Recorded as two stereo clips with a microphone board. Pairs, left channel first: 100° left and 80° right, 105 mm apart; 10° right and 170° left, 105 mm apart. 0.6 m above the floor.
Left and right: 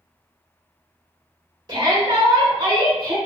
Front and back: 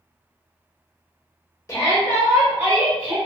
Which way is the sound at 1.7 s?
65° right.